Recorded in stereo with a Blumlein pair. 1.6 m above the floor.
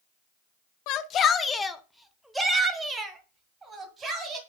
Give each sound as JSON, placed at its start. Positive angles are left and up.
{"t": 0.9, "sound": "a shout", "azimuth_deg": 40, "distance_m": 0.6}